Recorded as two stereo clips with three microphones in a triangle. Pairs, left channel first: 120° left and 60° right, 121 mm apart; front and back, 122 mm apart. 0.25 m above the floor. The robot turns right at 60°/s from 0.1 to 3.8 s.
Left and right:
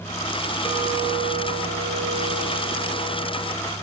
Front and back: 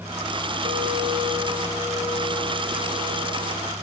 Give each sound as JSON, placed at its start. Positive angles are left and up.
{"t": 0.6, "sound": "a clink", "azimuth_deg": -150, "distance_m": 5.5}